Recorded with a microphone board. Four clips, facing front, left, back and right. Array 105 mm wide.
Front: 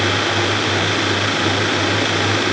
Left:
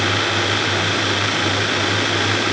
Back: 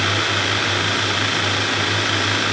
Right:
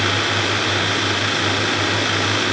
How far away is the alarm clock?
I don't hear an alarm clock.